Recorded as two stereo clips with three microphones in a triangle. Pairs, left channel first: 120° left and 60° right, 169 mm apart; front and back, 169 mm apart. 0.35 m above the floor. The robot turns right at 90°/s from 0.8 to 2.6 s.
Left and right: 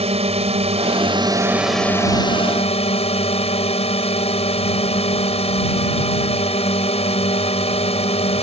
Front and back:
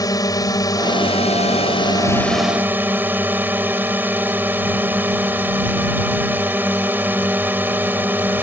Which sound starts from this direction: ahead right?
A drone, at 0.0 s.